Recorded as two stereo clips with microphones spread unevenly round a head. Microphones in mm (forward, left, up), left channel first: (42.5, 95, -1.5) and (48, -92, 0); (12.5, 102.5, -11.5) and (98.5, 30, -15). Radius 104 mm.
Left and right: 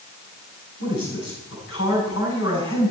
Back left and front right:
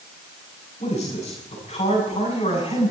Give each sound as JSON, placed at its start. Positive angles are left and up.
{"t": 0.8, "sound": "a man speaking", "azimuth_deg": 125, "distance_m": 9.5}